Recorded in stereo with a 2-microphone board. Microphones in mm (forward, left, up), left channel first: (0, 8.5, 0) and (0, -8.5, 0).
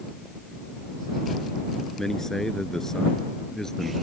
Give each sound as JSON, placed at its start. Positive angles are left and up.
{"t": 2.0, "sound": "a man speaking", "side_deg": 25}